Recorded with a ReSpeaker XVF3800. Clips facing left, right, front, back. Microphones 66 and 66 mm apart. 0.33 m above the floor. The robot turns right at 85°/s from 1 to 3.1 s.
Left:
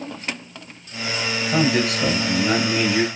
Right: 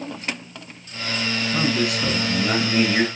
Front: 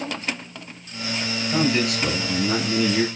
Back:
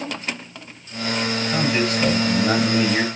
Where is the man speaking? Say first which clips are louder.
Left 4 dB, front 1 dB; 85° left, 6.5 m; by 3.0 s 145° right, 6.5 m.